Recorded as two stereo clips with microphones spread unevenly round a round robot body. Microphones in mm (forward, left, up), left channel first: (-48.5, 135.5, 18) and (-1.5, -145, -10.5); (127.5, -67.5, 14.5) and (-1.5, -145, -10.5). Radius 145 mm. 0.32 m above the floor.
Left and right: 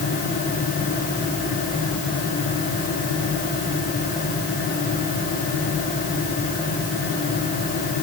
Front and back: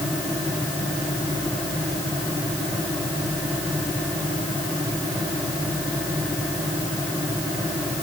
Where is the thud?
No thud in this recording.